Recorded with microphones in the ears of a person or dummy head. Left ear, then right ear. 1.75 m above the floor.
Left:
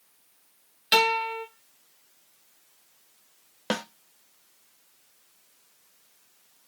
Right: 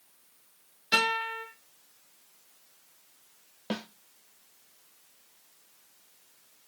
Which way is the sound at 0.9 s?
35° left (ahead or behind).